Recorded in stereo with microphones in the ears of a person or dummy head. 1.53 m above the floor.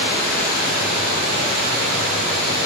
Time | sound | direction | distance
0.0 | running water | 65° right (ahead or behind) | 5 m